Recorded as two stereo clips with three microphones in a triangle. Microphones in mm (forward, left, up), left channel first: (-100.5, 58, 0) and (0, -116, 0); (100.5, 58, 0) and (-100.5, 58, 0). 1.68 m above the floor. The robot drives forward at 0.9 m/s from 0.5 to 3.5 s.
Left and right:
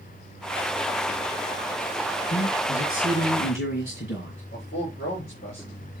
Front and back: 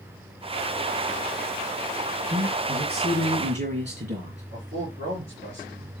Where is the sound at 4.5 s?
165° left, 7.5 m.